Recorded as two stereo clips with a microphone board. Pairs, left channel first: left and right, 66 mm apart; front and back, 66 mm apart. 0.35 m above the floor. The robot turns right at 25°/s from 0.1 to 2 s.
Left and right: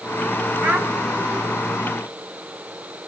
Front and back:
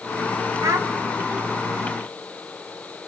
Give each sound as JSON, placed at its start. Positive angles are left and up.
{"t": 0.6, "sound": "a child speaking", "azimuth_deg": -150, "distance_m": 1.2}